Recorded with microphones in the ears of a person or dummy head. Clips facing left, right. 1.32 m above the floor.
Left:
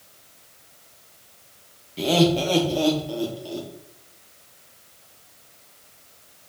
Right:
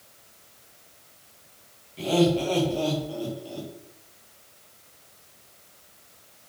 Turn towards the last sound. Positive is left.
turn(degrees=65)  # may be behind; listen again after turning